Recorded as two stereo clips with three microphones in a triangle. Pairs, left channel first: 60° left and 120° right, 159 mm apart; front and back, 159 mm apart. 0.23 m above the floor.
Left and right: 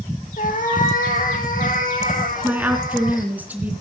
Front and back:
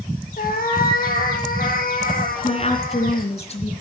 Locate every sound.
0.4 s a cat meowing: 25° left, 3 m
2.4 s a woman speaking: 40° right, 3 m